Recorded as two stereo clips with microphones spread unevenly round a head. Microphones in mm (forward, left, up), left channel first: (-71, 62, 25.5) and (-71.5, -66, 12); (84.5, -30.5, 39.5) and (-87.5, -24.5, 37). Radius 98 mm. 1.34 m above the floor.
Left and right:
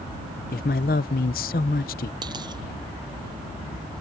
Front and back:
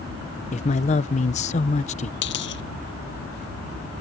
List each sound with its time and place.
0.5 s a man speaking: 55° left
2.2 s a dropped coin: 20° right